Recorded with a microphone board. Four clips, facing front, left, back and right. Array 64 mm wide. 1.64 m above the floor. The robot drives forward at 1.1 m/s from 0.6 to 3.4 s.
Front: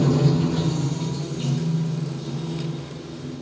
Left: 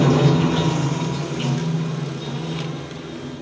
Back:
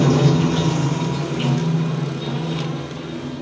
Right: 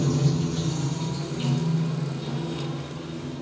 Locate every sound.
0.0 s running water: 120° left, 0.8 m; by 3.4 s 170° left, 3.5 m